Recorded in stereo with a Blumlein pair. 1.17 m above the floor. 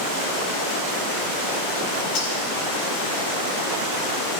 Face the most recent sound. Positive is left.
turn(degrees=40)